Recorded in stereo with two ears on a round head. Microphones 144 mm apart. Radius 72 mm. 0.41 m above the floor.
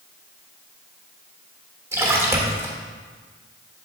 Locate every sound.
1.9 s a splash: 15° right (ahead or behind), 1.2 m